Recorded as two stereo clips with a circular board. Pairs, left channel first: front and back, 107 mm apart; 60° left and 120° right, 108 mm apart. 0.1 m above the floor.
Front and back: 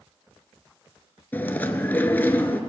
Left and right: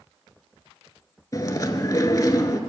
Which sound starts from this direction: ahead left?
Chewing, at 1.3 s.